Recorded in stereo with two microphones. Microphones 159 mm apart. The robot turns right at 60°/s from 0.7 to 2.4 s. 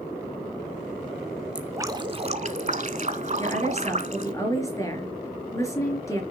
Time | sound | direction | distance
1.6 | dripping | 170° right | 0.9 m
3.4 | a woman speaking | 20° left (ahead or behind) | 4.5 m